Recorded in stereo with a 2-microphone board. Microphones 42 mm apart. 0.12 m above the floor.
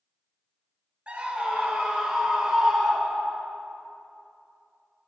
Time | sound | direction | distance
1.1 | a scream | 25° right (ahead or behind) | 1.9 m